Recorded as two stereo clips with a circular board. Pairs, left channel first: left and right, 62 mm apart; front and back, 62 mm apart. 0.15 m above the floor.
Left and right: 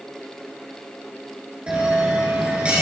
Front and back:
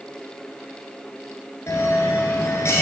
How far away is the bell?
About 2.5 m.